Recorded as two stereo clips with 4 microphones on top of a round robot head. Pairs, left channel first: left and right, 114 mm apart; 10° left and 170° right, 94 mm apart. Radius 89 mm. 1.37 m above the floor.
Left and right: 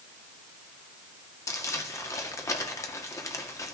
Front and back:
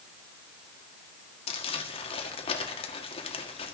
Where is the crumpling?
30° left, 1.7 m.